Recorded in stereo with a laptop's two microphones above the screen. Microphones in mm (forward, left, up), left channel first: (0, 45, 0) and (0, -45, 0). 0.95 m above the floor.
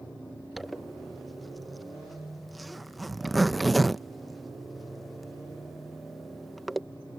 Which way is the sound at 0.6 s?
Centre (ahead or behind).